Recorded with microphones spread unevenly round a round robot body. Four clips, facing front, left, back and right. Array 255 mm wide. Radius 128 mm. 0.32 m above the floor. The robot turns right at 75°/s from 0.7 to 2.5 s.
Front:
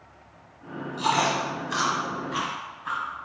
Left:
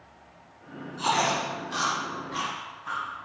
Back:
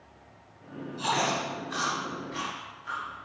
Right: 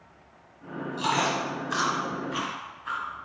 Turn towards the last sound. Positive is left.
turn(degrees=10)